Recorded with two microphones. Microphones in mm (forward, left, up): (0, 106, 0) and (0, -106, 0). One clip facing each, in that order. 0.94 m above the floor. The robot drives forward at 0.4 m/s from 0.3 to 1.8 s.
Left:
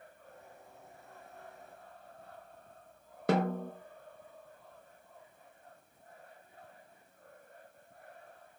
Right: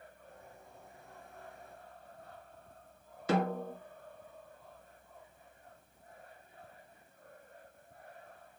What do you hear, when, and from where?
3.3 s a snare drum: 55° left (ahead or behind), 0.7 m